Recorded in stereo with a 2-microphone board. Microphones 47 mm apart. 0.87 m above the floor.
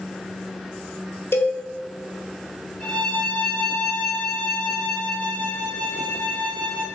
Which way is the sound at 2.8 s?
25° left (ahead or behind).